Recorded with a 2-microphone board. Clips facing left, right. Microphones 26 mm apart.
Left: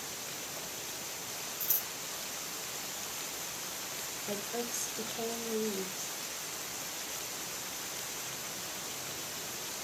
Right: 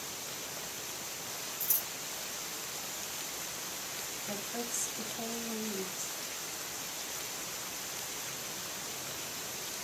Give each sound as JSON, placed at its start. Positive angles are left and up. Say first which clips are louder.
{"t": 1.6, "sound": "scissors", "louder": "even", "side_deg": 30, "distance_m": 2.5}
{"t": 4.3, "sound": "a woman speaking", "louder": "left 3 dB", "side_deg": 50, "distance_m": 3.0}